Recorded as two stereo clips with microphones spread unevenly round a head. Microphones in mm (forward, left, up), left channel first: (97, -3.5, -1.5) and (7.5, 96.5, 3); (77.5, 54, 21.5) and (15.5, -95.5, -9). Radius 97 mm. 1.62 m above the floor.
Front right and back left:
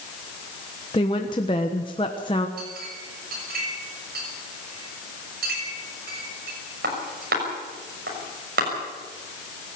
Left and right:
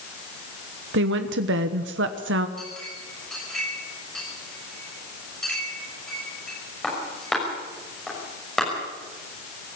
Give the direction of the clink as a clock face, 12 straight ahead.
7 o'clock.